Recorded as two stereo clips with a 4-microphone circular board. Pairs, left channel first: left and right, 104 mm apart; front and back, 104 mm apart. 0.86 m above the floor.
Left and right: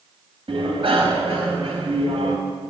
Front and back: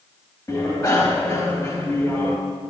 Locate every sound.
0.5 s a bicycle bell: 60° right, 3.5 m